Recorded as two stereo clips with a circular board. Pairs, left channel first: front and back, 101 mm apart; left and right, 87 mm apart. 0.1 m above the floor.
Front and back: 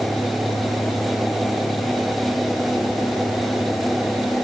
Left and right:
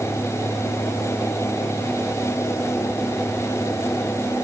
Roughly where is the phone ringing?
No phone ringing in this recording.